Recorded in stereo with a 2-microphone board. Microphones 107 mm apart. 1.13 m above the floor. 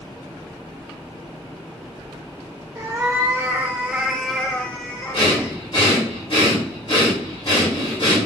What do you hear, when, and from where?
2.8 s a cat meowing: 30° right (ahead or behind), 1.1 m; by 5.5 s 30° left (ahead or behind), 1.0 m
5.1 s breathing: 55° left (ahead or behind), 2.5 m